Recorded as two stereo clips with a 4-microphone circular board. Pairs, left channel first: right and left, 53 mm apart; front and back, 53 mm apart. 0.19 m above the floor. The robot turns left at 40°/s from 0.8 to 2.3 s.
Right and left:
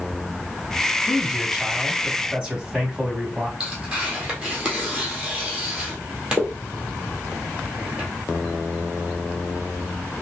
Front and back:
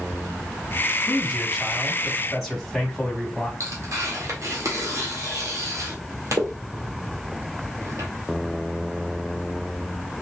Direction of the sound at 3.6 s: 160° left.